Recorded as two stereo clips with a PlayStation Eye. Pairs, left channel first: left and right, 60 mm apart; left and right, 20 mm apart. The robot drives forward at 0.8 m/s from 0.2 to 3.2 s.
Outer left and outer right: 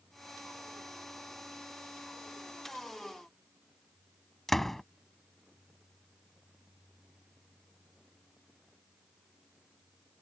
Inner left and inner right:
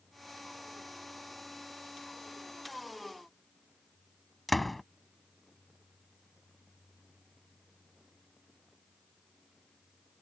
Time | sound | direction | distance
4.5 | a door slam | centre (ahead or behind) | ?